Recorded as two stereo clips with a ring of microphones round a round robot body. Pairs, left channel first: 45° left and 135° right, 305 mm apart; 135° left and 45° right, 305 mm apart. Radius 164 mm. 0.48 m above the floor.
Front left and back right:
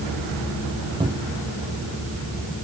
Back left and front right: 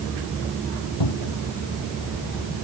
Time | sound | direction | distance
1.0 | a cupboard door | 150° left | ?